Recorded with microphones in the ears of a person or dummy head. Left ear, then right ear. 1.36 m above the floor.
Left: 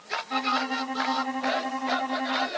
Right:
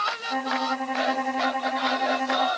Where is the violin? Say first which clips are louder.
Even; 15° right (ahead or behind).